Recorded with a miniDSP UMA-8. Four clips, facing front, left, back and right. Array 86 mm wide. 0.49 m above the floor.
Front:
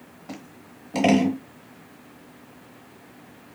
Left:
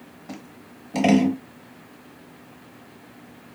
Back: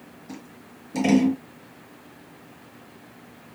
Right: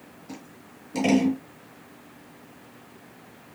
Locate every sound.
0.3 s scissors: 30° left, 0.9 m